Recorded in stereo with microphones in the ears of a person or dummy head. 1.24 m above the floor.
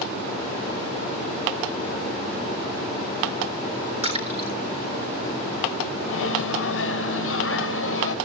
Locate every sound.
4.0 s a splash: 35° right (ahead or behind), 3.5 m
6.0 s a microwave: 75° left (ahead or behind), 1.2 m